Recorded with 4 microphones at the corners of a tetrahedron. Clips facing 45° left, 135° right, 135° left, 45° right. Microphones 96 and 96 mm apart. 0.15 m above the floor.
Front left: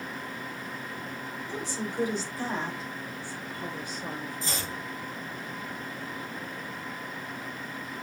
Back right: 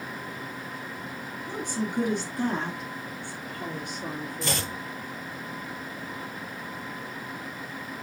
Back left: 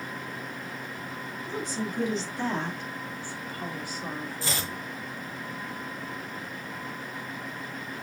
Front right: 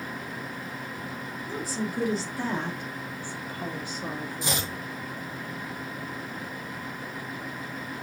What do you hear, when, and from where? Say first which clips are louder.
1.5 s a woman speaking: back right 4 dB, front right 1 dB; 130° right, 2 m; by 4.7 s 115° right, 4 m
4.4 s chopping: back right 4 dB, front right 3 dB; 115° right, 1.1 m